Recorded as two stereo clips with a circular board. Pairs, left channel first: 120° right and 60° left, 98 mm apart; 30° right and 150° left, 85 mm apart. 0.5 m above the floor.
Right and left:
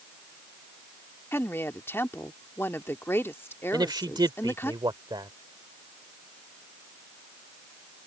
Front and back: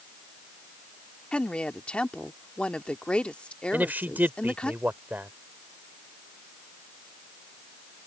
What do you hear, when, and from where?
1.3 s a woman speaking: 95° right
3.7 s a man speaking: 90° left